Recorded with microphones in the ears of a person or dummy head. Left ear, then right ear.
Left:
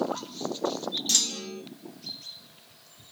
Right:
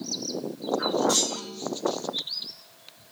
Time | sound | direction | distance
1.1 | a clunk | 60° left (ahead or behind) | 0.8 m